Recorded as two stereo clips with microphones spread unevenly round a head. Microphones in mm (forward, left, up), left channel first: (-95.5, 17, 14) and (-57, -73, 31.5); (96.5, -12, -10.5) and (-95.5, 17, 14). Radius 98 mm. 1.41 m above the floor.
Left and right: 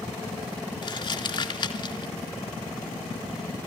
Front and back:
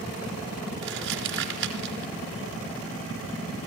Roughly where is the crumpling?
Behind left.